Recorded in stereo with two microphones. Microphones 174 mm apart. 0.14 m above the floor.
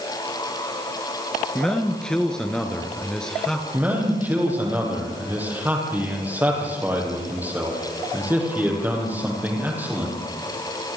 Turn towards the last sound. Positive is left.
turn(degrees=-10)  # may be behind; listen again after turning